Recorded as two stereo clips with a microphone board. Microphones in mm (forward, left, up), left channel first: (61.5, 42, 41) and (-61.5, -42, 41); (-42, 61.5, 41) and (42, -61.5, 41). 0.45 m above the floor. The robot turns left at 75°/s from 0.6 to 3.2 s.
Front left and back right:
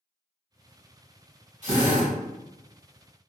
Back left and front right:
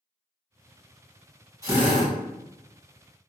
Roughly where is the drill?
Behind right.